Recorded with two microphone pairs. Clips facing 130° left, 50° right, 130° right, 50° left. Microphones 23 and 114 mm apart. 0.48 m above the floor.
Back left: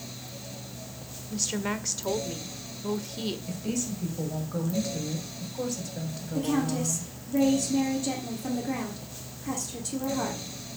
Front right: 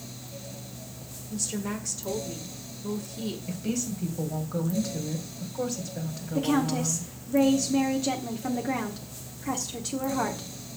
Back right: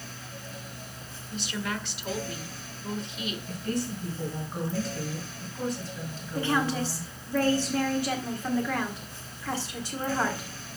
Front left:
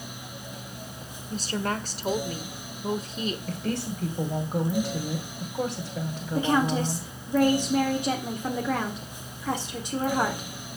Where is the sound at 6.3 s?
10° right, 1.4 m.